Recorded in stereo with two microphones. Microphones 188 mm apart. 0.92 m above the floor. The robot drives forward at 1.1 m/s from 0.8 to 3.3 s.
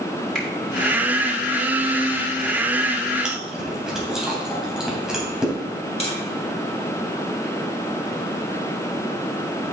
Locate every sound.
0.3 s a finger snap: 5° left (ahead or behind), 2.5 m
3.2 s chewing: 5° right (ahead or behind), 3 m
6.0 s tapping: 30° left (ahead or behind), 1.9 m